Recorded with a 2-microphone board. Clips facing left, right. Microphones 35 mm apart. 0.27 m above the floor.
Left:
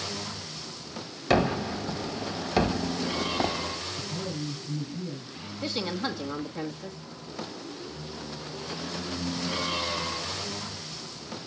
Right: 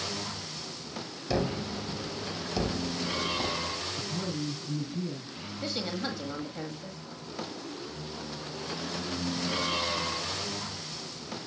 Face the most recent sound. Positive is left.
turn(degrees=5)  # may be behind; listen again after turning